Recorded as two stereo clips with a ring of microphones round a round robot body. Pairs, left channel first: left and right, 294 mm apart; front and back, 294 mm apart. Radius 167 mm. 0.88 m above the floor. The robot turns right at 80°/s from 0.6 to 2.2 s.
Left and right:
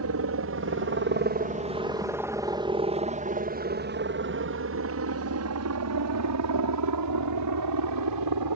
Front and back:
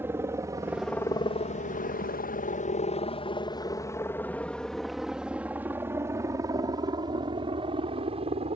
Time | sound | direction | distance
0.0 | a helicopter | 100° right | ?